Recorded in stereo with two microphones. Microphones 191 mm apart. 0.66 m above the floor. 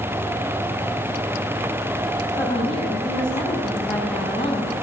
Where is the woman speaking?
30° left (ahead or behind), 6 m.